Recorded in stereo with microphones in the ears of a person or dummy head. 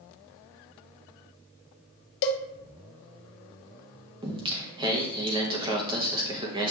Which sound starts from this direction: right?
Singing, at 4.2 s.